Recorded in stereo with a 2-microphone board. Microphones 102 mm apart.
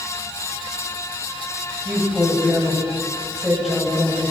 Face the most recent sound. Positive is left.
turn(degrees=0)  # may be behind; listen again after turning